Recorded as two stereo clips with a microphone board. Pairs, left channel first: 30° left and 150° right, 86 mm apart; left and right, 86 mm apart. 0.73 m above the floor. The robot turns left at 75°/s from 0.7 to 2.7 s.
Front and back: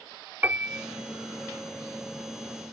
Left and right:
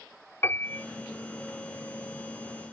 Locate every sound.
0.4 s a piano: 145° left; by 0.8 s 135° left